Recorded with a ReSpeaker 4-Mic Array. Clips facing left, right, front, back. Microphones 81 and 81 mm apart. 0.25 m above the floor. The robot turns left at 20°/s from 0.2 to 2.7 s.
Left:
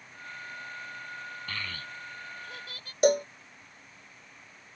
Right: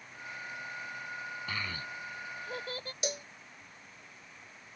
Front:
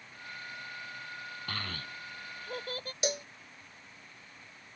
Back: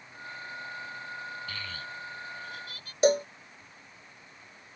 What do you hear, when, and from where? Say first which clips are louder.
1.5 s a child speaking: even, back 1 dB; 10° right; by 2.9 s 35° right
3.0 s a cowbell: left 16 dB, back 12 dB; 130° left